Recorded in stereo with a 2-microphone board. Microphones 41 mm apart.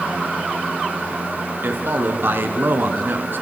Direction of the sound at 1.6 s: 70° right (ahead or behind).